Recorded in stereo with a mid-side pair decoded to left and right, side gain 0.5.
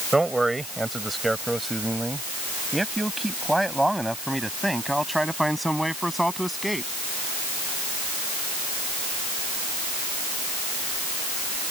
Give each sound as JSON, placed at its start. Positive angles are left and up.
{"t": 0.1, "sound": "a man speaking", "azimuth_deg": -15}